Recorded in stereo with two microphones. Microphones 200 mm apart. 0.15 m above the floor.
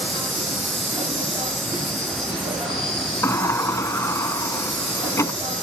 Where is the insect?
30° right (ahead or behind), 9.5 m.